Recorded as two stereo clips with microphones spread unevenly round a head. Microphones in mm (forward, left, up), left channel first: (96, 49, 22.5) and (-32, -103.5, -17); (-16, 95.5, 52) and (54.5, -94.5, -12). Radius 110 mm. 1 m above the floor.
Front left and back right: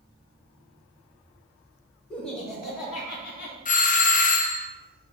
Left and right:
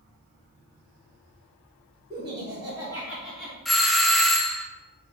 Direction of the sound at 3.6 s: Straight ahead.